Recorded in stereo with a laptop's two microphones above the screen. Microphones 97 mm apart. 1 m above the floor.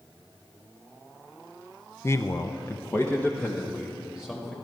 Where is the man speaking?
25° left (ahead or behind), 0.6 m; by 4.5 s 15° left (ahead or behind), 2.5 m.